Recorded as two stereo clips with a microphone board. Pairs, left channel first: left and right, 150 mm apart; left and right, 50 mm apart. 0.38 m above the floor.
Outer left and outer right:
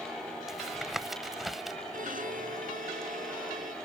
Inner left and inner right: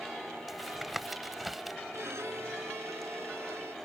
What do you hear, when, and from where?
0.5 s tapping: centre (ahead or behind)
1.9 s a violin: 65° right (ahead or behind)